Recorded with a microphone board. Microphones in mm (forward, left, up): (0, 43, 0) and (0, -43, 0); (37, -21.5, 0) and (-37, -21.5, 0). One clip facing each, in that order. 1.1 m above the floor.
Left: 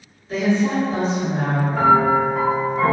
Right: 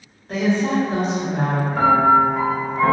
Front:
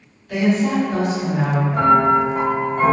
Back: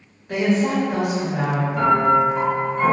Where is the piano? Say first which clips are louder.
Right 1 dB, front 2 dB; straight ahead, 0.9 m.